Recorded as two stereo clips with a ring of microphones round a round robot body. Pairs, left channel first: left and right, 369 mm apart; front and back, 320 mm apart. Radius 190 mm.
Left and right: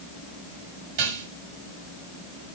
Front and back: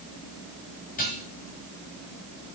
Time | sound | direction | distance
1.0 | dishes clattering | 70° right | 5.5 m